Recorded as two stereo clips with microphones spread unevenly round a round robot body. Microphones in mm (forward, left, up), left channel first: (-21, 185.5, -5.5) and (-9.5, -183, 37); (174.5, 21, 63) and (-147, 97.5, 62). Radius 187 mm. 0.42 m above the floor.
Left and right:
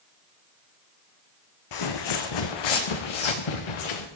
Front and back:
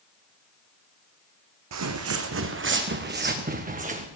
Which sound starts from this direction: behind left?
Footsteps, at 1.7 s.